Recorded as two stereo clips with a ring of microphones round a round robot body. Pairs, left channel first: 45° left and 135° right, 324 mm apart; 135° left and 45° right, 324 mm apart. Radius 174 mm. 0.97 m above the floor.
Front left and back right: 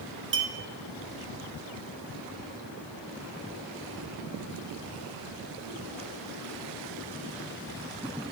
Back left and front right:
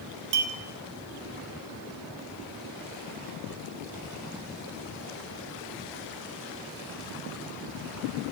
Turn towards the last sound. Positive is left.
turn(degrees=-80)